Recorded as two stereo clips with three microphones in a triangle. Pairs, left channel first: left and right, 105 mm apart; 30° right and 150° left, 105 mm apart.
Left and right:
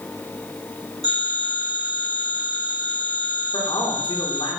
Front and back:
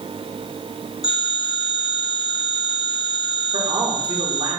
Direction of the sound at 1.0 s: 60° right.